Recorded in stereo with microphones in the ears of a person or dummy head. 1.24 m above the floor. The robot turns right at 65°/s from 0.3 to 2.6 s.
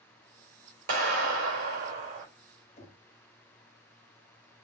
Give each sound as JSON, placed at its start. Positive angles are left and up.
{"t": 0.9, "sound": "a clap", "azimuth_deg": -130, "distance_m": 3.5}
{"t": 2.8, "sound": "knocking", "side_deg": 35, "distance_m": 1.6}